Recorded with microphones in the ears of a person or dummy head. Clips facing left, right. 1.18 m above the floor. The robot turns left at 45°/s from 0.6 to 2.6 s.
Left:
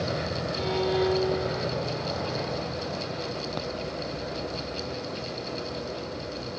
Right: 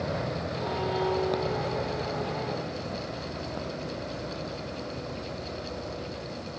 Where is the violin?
45° left; by 1.9 s 15° right.